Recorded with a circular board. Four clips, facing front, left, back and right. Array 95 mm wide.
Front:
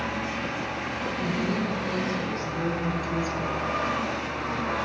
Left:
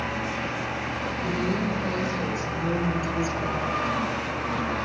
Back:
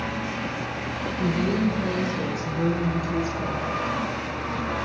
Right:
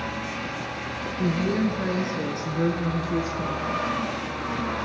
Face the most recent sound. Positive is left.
turn(degrees=-80)